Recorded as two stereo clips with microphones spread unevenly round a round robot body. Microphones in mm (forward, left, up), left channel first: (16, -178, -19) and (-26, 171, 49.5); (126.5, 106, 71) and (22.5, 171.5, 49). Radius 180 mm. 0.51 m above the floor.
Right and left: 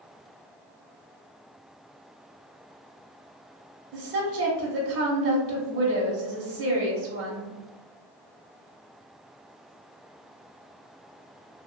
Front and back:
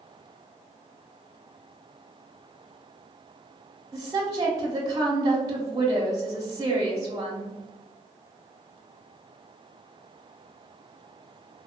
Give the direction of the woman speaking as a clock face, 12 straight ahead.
7 o'clock.